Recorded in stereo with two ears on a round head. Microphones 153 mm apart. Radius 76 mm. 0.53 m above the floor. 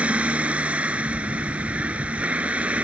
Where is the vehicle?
5° right (ahead or behind).